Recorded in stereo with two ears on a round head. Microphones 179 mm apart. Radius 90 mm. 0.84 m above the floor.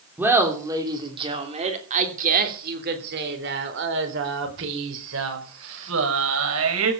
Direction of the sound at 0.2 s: 10° right (ahead or behind).